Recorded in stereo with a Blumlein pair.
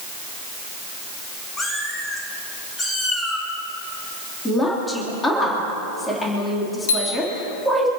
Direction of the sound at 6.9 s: 60° left.